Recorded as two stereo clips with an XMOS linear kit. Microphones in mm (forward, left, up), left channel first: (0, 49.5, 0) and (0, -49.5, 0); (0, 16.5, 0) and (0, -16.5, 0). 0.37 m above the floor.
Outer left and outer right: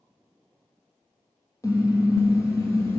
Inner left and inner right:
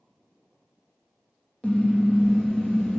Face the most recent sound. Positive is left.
turn(degrees=30)  # may be behind; listen again after turning